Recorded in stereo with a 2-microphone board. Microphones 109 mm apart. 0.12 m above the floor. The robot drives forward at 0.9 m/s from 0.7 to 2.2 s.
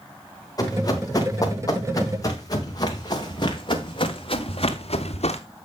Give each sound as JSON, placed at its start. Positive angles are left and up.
{"t": 0.6, "sound": "running footsteps", "side_deg": 35, "distance_m": 5.0}